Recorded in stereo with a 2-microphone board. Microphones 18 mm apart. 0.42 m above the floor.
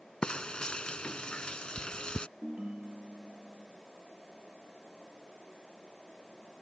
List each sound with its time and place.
0.2 s frying: 70° left (ahead or behind)
2.4 s a ringtone: 80° right